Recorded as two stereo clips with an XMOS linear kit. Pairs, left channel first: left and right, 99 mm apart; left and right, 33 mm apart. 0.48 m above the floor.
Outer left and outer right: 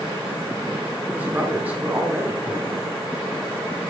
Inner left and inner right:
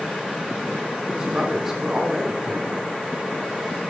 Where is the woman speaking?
15° right (ahead or behind), 0.9 m.